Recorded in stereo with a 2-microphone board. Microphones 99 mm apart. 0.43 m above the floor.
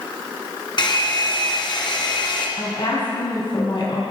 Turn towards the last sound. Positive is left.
turn(degrees=60)  # may be behind; listen again after turning